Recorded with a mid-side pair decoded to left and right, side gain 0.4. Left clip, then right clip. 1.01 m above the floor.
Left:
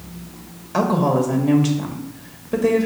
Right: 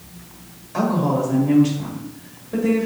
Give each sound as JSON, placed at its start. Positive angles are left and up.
{"t": 0.7, "sound": "a woman speaking", "azimuth_deg": 60, "distance_m": 1.4}